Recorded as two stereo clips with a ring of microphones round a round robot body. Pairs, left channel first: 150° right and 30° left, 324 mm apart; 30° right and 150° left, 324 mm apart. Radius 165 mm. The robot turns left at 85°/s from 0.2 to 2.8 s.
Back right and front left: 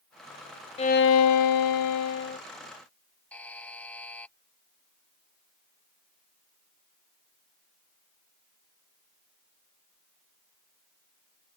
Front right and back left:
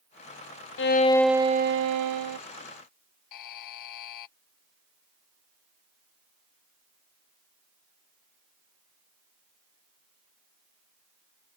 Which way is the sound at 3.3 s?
65° right.